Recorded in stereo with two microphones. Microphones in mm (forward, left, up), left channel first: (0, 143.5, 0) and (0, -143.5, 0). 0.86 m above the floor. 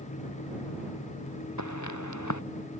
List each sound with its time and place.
1.6 s footsteps: 80° left